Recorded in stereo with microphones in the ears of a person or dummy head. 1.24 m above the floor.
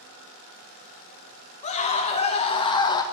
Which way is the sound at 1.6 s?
40° left (ahead or behind).